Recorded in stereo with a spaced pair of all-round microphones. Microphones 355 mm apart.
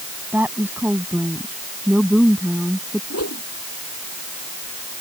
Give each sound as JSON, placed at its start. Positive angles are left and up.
{"t": 0.3, "sound": "a woman speaking", "side_deg": -5}
{"t": 3.1, "sound": "a whoosh", "side_deg": 45}